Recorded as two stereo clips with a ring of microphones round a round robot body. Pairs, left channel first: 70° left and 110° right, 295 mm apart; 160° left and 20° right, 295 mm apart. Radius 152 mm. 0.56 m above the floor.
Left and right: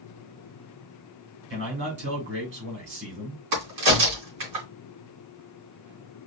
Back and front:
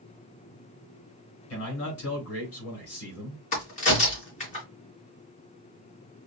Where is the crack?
135° right, 3 m.